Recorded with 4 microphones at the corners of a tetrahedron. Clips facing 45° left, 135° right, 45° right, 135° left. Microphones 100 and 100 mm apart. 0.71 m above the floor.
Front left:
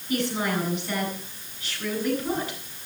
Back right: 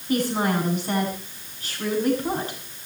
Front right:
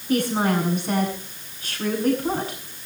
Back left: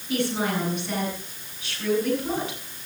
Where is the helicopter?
No helicopter in this recording.